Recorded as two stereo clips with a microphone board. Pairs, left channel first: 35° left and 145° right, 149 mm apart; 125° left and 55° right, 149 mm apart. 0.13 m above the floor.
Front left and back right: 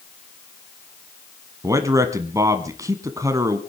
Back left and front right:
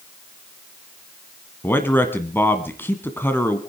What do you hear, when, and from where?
1.6 s a man speaking: straight behind, 1.2 m